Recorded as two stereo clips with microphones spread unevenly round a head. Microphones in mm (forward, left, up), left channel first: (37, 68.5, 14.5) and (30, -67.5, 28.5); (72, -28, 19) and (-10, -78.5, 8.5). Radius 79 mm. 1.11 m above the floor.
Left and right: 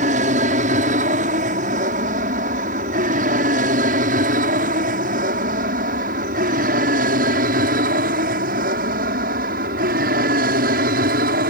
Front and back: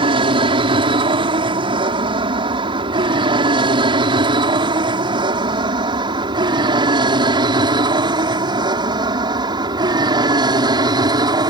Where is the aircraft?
130° right; by 11.5 s 110° right.